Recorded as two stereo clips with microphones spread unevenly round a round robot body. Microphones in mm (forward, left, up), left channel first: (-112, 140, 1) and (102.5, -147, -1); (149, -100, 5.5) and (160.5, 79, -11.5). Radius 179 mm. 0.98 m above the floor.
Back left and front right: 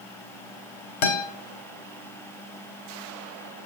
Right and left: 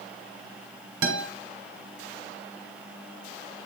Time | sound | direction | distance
1.0 | a guitar | 115° left | 1.5 m